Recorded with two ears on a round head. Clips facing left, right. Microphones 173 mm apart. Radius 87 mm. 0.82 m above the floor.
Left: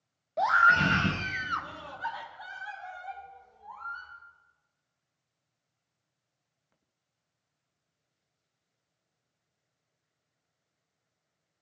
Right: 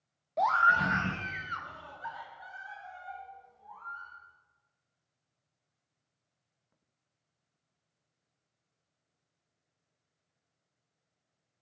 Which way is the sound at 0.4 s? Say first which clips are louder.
Left 2 dB; centre (ahead or behind).